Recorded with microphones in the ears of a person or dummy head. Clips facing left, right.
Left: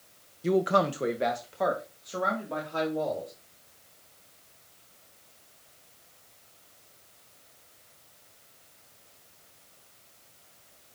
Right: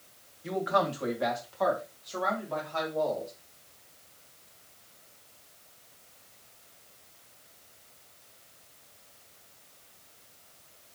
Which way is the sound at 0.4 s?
45° left (ahead or behind).